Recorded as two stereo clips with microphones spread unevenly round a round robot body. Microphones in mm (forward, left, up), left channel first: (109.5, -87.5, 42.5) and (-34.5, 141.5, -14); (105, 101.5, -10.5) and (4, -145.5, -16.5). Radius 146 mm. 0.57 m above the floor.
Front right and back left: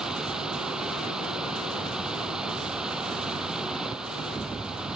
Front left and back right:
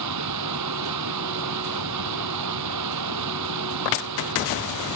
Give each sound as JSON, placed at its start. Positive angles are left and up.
{"t": 0.0, "sound": "running water", "azimuth_deg": -150}